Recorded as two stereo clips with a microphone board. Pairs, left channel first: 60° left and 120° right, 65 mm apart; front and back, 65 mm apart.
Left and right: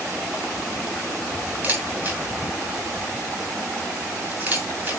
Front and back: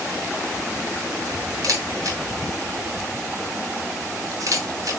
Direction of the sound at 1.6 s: Straight behind.